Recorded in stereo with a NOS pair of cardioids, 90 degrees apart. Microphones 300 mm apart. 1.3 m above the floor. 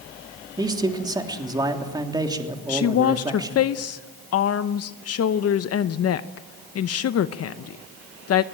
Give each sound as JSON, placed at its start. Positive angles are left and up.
{"t": 0.6, "sound": "a man speaking", "azimuth_deg": -15, "distance_m": 3.0}
{"t": 2.7, "sound": "a woman speaking", "azimuth_deg": 50, "distance_m": 0.8}